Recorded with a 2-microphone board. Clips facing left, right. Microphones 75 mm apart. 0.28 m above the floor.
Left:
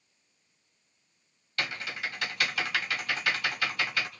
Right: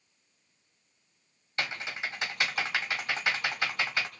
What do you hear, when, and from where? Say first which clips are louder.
1.6 s typing on a keyboard: even; 25° right (ahead or behind), 1.3 m